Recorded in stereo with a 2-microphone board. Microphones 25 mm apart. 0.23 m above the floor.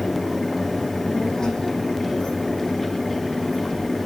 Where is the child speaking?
35° left (ahead or behind), 9.5 m; by 4.0 s 20° left (ahead or behind), 7.5 m.